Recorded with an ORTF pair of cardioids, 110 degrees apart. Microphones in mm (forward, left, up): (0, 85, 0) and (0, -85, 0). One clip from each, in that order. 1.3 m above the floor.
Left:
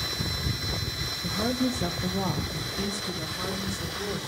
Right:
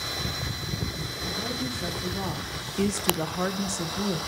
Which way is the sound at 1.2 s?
50° left.